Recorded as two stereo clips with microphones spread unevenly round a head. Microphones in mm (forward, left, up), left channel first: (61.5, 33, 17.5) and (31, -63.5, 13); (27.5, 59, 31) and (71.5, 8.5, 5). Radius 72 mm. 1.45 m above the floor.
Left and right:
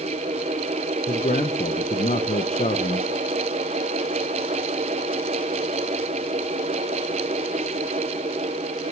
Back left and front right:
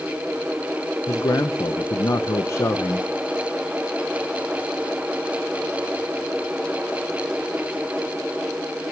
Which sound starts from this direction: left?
A man speaking, at 1.1 s.